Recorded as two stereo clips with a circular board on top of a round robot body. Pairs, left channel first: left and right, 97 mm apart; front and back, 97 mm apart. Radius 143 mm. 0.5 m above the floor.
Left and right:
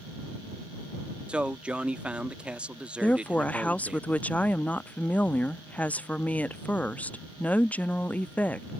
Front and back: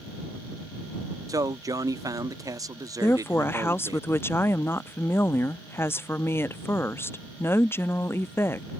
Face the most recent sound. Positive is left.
turn(degrees=35)